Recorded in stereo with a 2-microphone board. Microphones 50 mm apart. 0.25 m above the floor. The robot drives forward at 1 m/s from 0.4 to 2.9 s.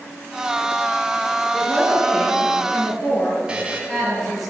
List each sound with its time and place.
1.5 s a woman speaking: centre (ahead or behind), 5 m
3.5 s a buzzer: 20° right (ahead or behind), 2 m